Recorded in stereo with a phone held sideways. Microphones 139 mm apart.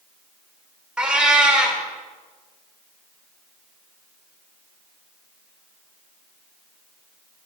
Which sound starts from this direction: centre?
A cat meowing, at 1.0 s.